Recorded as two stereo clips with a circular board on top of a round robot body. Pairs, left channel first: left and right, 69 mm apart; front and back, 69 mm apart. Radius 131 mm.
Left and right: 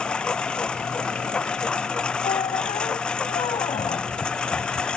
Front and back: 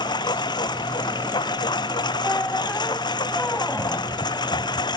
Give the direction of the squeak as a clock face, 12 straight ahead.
10 o'clock.